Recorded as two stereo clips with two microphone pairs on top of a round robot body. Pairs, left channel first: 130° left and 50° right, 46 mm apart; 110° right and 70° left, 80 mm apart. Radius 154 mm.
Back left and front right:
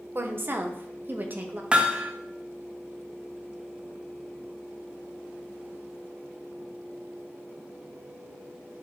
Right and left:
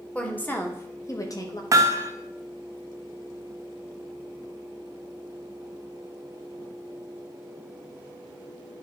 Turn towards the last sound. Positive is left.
turn(degrees=20)